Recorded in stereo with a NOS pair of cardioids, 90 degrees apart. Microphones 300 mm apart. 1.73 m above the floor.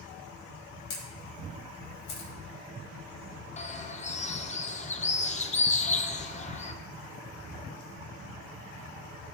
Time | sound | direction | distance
0.9 | a camera shutter | 70° left | 1.9 m
3.6 | a bird | 25° left | 0.8 m